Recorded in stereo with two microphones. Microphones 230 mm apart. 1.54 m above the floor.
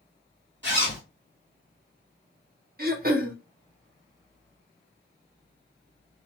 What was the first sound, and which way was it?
A zipper, 50° right (ahead or behind).